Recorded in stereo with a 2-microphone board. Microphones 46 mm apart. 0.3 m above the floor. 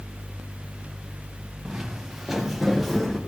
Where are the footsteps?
15° right (ahead or behind), 2 m; by 3.2 s 5° left (ahead or behind), 3 m.